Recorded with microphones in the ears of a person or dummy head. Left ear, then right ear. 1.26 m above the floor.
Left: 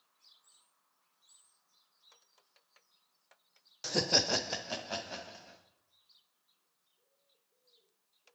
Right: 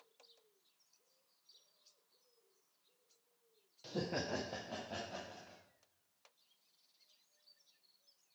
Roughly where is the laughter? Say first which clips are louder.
Left 11 dB; left.